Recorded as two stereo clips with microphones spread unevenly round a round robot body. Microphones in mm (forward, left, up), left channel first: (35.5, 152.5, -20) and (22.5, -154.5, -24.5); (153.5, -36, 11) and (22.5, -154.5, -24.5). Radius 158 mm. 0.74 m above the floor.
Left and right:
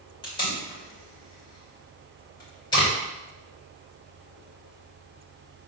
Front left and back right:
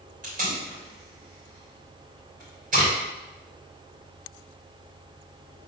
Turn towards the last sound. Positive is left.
turn(degrees=165)